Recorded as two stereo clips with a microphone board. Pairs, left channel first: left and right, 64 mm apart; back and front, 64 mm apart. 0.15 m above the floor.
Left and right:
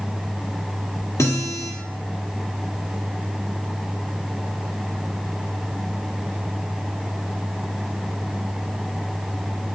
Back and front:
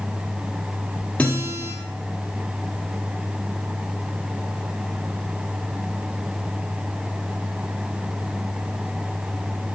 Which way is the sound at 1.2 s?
115° left.